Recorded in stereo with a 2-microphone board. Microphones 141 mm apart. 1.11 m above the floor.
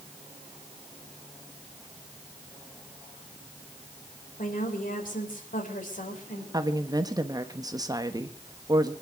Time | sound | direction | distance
4.4 | a woman speaking | 80° left | 4 m
6.5 | a woman speaking | 25° right (ahead or behind) | 1.4 m